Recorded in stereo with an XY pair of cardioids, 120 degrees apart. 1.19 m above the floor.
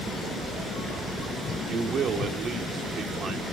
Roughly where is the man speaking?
Ahead right.